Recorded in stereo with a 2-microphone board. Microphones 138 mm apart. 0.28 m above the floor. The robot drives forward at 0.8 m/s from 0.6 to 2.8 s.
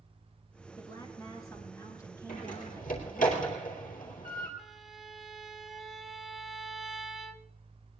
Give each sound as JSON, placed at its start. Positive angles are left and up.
{"t": 0.8, "sound": "a woman speaking", "side_deg": 30, "distance_m": 4.0}
{"t": 2.3, "sound": "a door slam", "side_deg": 75, "distance_m": 4.0}
{"t": 4.6, "sound": "a violin", "side_deg": 0, "distance_m": 0.9}